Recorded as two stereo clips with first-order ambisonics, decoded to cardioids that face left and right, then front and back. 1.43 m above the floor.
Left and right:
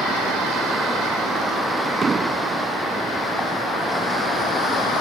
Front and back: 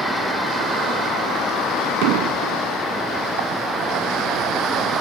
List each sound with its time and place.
2.0 s an explosion: 165° right